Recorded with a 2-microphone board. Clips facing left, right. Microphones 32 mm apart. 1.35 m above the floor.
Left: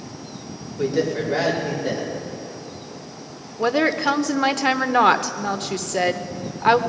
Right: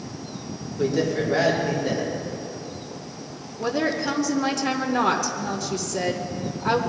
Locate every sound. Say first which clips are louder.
0.8 s a man speaking: left 1 dB; 15° left (ahead or behind), 3.5 m
3.6 s a woman speaking: left 5 dB; 60° left (ahead or behind), 0.7 m